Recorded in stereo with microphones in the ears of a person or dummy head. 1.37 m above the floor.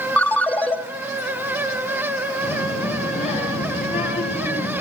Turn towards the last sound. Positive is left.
turn(degrees=35)  # may be behind; listen again after turning